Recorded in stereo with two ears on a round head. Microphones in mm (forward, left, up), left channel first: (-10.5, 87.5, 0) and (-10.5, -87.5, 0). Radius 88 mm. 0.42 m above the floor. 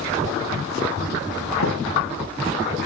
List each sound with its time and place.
1.6 s a thud: 75° left (ahead or behind), 9 m